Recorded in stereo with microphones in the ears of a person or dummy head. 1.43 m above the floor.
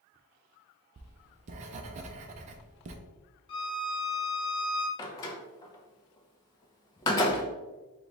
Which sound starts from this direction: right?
Writing, at 1.0 s.